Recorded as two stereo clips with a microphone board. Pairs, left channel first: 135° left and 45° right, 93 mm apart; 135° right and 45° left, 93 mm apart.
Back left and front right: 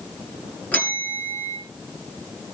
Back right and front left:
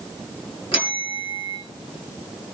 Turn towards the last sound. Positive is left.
turn(degrees=-150)